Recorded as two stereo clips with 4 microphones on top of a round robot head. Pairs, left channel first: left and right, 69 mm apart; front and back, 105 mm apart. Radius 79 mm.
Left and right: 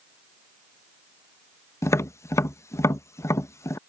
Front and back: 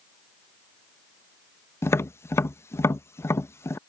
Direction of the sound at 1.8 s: 60° left.